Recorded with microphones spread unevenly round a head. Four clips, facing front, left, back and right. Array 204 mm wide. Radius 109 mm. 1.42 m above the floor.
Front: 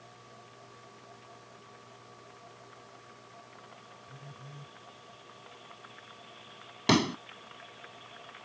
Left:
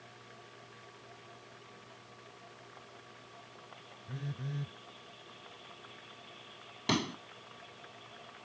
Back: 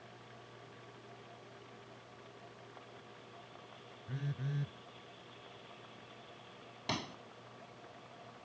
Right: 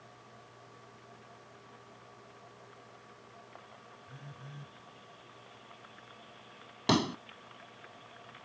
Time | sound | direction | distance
4.1 | a phone buzzing | 150° left | ?
6.9 | a pop | 15° right | ?